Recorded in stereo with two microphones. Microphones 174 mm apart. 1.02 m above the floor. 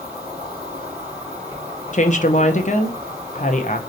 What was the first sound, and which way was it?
An insect, 25° right (ahead or behind).